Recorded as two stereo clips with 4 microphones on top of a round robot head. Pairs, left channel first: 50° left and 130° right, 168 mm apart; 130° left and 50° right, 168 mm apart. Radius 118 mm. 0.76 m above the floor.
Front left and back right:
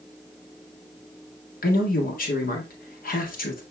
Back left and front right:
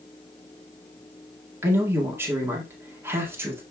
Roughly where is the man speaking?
Ahead left.